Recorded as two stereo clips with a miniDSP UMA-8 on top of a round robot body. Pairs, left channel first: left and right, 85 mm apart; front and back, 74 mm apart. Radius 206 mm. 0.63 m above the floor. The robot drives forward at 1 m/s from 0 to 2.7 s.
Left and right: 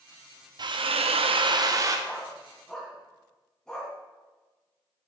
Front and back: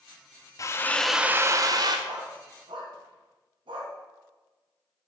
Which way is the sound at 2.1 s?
170° left.